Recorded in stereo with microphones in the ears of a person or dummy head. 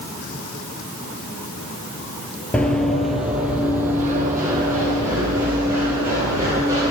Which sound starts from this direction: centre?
Running footsteps, at 2.5 s.